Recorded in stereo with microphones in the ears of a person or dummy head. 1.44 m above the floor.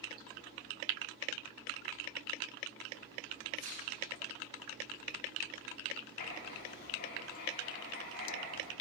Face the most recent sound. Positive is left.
turn(degrees=55)  # may be behind; listen again after turning